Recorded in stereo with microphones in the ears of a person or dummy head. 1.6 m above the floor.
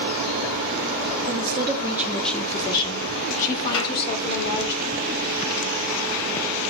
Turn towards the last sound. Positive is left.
turn(degrees=80)